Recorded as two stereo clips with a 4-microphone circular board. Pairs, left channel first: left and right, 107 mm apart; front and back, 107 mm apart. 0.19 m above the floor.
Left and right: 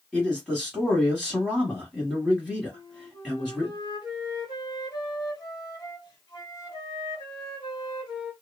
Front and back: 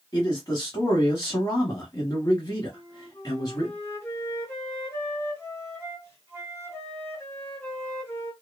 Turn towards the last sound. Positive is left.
turn(degrees=55)